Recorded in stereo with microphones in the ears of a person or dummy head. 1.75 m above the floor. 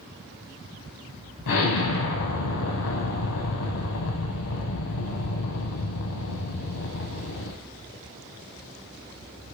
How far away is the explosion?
About 0.7 m.